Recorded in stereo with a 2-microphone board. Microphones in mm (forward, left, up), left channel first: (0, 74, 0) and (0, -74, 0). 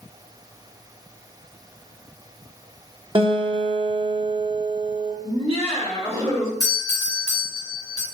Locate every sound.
3.1 s a guitar: 35° right (ahead or behind), 0.9 m
5.2 s laughter: 45° right (ahead or behind), 1.7 m
6.6 s a doorbell: 25° left (ahead or behind), 2 m